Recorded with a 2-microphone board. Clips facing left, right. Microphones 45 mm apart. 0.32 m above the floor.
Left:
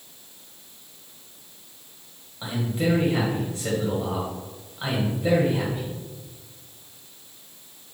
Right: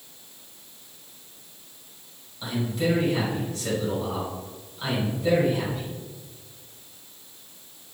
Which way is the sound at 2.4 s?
25° left (ahead or behind).